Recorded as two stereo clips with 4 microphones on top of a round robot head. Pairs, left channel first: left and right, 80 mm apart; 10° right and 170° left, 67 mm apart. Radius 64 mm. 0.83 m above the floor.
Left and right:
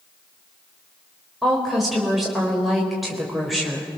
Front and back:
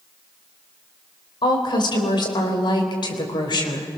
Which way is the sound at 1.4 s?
Straight ahead.